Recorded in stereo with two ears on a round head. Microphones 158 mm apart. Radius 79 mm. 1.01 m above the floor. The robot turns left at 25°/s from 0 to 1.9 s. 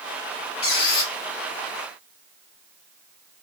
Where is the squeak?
60° left (ahead or behind), 1.1 m; by 1.1 s 55° left (ahead or behind), 1.1 m.